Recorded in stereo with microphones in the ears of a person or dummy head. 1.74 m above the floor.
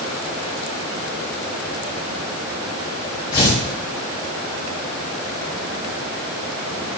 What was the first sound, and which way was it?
Tearing paper, 20° left (ahead or behind).